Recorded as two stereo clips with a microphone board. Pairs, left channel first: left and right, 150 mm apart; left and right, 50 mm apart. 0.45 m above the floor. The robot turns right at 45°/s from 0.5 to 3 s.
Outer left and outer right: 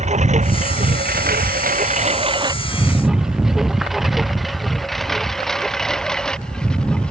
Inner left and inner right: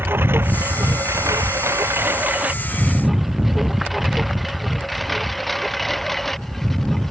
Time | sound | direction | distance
0.0 | a lawn mower | 50° right (ahead or behind) | ?